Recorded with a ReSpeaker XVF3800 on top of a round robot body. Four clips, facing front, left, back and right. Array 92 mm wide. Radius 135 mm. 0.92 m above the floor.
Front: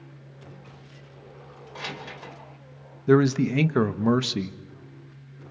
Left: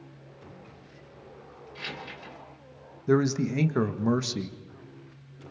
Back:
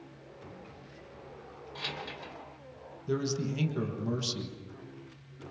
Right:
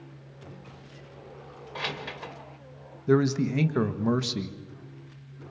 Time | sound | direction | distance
1.8 | keys jangling | 70° right | 3 m
3.1 | a man speaking | 10° left | 1.7 m